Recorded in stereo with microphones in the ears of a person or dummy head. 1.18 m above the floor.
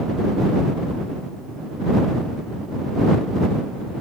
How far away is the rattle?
No rattle in this recording.